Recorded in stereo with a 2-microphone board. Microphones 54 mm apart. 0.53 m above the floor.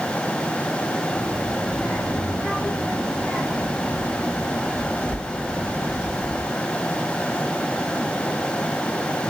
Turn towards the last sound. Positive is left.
turn(degrees=-25)  # may be behind; listen again after turning